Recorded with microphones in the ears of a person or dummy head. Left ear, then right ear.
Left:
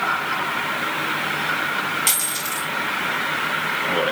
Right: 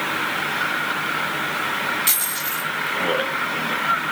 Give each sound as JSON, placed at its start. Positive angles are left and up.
{"t": 2.1, "sound": "a dropped coin", "side_deg": 25, "distance_m": 2.5}